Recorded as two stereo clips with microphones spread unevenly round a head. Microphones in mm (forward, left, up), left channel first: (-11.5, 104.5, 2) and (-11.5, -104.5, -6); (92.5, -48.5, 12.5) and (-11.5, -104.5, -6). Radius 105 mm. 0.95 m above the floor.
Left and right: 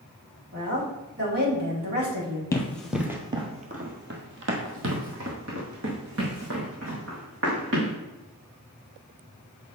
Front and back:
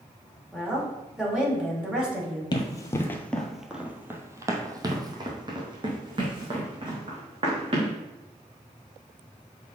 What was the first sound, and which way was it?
A woman speaking, 65° right.